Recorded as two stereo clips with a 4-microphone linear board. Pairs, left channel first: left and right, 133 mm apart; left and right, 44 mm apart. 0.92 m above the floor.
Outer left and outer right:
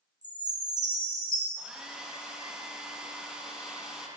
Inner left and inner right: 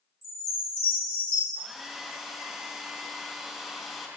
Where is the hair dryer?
5° right (ahead or behind), 0.7 m.